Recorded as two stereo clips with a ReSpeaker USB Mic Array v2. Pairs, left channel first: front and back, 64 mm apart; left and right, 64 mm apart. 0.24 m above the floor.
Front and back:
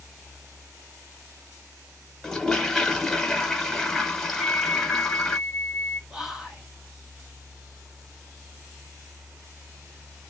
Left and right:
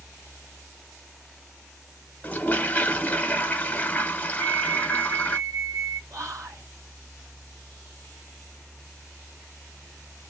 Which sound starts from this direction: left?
A toilet flushing, at 2.2 s.